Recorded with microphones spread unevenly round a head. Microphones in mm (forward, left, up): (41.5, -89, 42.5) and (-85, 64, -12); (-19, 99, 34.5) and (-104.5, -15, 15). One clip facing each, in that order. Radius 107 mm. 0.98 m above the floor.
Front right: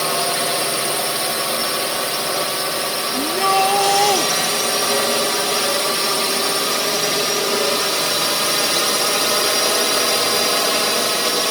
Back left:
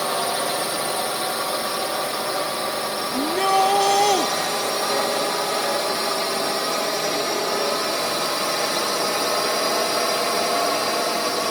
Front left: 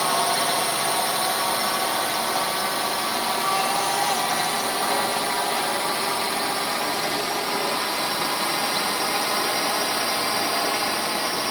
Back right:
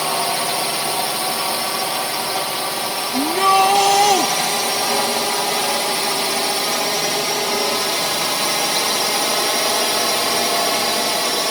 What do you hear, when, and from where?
0.0 s a drone: 80° right; by 11.5 s 90° right
3.1 s a shout: 140° right